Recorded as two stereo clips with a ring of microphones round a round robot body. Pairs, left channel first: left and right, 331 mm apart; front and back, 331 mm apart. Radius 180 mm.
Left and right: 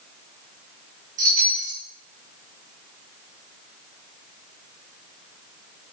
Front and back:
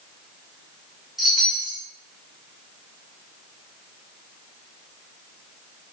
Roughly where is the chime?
Right.